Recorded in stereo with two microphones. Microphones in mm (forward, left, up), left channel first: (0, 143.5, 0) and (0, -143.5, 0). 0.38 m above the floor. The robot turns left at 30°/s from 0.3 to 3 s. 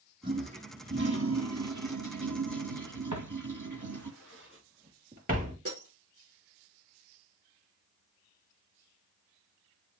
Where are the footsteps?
65° right (ahead or behind), 3.5 m; by 5.5 s 25° right (ahead or behind), 4.5 m.